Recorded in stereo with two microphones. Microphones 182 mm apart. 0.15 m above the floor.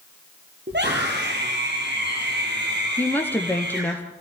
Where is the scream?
75° right (ahead or behind), 4 m; by 3.9 s 70° right (ahead or behind), 4.5 m.